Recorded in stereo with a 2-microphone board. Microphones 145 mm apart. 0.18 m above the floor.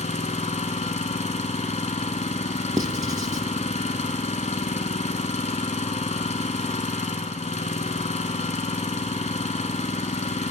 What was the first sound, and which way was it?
An engine running, 55° left (ahead or behind).